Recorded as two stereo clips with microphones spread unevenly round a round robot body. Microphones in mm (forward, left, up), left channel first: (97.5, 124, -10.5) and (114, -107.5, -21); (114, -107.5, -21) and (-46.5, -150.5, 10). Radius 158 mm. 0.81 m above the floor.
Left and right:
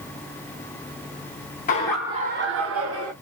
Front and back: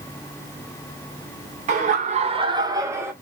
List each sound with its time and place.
1.7 s laughter: 145° left, 0.7 m; by 3.1 s 85° right, 1.4 m